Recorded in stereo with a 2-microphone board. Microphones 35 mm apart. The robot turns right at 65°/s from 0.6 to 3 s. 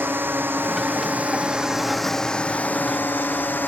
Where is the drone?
85° right; by 3.7 s 70° left.